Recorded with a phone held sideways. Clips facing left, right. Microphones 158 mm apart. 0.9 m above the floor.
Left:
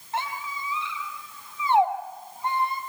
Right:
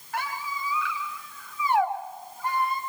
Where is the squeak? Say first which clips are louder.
Left 1 dB; 25° left (ahead or behind), 3 m.